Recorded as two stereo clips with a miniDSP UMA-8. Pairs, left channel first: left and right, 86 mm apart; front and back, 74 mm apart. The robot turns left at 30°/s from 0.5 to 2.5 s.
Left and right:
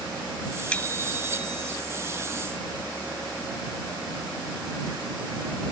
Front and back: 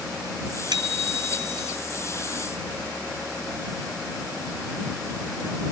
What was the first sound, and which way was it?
A bicycle bell, 165° left.